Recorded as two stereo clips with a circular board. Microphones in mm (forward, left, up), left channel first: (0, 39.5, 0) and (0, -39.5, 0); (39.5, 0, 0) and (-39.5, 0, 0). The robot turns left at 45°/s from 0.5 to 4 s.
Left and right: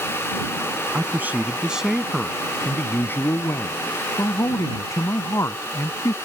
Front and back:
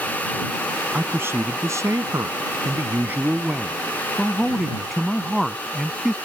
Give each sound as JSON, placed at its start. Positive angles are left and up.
{"t": 0.9, "sound": "a man speaking", "azimuth_deg": -130}